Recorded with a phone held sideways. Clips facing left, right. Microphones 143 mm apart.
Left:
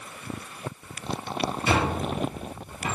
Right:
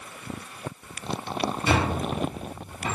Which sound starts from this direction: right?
A squeak, at 1.7 s.